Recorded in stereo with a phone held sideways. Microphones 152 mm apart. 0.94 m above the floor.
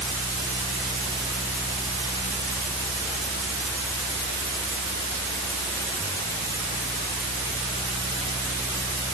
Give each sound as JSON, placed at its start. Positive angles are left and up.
{"t": 0.0, "sound": "a fan", "side_deg": 15}